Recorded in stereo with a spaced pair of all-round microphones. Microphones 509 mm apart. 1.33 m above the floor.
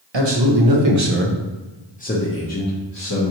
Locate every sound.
0.1 s a man speaking: 55° right (ahead or behind), 0.8 m; by 3.3 s 40° left (ahead or behind), 1.1 m